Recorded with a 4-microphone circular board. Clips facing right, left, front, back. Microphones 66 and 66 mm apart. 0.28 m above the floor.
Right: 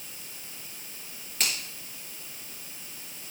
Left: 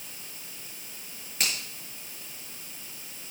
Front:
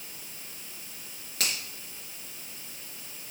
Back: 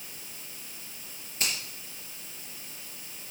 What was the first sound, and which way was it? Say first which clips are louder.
A finger snap: even, even; 5° left.